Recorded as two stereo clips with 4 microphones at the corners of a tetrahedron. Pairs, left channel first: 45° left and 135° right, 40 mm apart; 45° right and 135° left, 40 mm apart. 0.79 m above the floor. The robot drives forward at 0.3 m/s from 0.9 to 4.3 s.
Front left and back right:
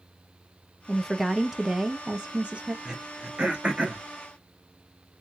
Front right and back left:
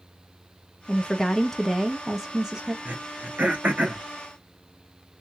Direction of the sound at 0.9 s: 25° right.